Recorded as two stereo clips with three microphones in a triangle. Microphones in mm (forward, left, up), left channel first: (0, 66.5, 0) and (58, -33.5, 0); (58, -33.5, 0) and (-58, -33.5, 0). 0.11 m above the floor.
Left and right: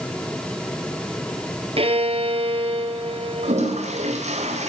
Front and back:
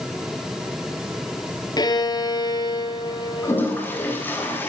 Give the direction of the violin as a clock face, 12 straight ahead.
2 o'clock.